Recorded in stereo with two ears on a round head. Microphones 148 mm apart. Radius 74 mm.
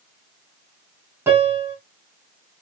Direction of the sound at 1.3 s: 15° right (ahead or behind).